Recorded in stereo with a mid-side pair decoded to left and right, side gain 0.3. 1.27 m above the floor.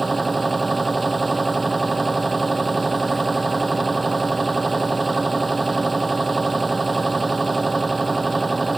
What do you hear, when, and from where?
0.0 s a machine running: 25° right